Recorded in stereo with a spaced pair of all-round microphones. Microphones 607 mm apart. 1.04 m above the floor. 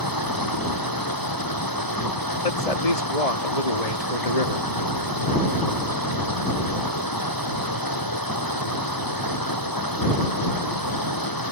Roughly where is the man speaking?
Left.